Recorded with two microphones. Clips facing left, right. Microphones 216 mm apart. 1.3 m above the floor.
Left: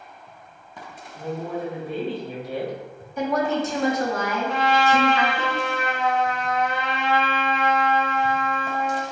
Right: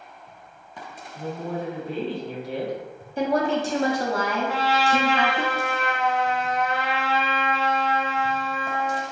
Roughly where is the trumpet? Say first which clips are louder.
Left 5 dB; centre.